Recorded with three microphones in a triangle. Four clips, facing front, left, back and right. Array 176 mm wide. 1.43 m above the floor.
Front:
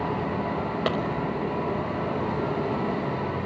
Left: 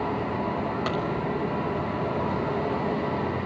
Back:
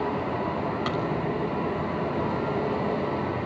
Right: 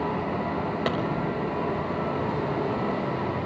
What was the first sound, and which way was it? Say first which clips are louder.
A clap: right 4 dB, front 3 dB; 25° right.